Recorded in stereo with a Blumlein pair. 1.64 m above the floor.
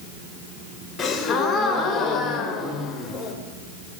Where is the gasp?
20° left, 0.8 m.